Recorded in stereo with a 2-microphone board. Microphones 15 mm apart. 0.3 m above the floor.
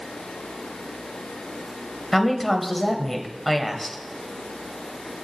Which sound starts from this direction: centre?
A woman speaking, at 2.1 s.